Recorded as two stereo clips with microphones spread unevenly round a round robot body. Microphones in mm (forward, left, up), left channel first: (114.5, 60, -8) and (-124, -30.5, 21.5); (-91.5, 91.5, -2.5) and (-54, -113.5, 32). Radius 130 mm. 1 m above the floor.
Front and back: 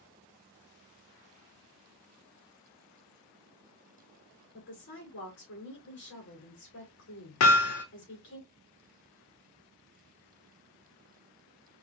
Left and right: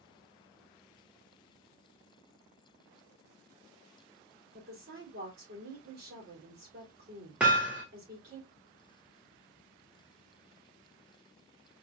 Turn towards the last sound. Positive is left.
turn(degrees=-5)